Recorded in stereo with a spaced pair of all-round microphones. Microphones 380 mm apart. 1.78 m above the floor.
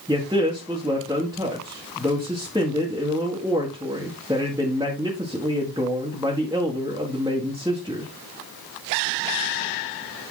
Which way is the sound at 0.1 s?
10° right (ahead or behind).